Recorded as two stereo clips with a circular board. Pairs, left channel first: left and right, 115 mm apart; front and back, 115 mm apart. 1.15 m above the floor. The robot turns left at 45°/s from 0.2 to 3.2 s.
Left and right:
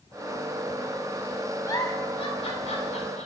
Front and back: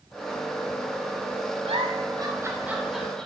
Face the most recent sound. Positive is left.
turn(degrees=80)